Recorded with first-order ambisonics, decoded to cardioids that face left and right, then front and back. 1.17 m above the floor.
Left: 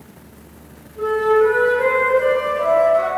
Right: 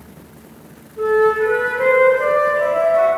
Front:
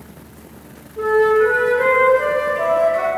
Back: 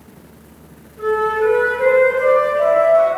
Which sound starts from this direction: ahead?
A flute, at 1.0 s.